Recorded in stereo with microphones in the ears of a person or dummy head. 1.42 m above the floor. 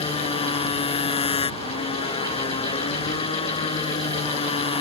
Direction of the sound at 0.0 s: 25° left (ahead or behind).